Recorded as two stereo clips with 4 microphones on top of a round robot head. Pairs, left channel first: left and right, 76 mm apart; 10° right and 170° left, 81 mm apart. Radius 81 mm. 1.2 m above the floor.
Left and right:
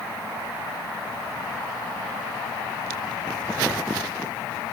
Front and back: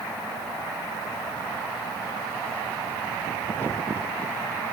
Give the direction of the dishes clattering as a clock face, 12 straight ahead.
No dishes clattering in this recording.